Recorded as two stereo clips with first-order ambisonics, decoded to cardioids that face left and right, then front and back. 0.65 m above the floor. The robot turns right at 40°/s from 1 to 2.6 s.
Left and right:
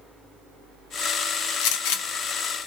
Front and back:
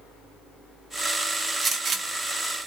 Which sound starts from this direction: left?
A gunshot, at 1.6 s.